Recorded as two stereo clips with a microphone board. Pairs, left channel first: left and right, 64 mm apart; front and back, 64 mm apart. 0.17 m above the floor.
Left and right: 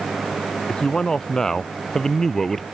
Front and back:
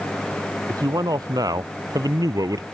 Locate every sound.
0.7 s a man speaking: 170° left; by 2.6 s 175° left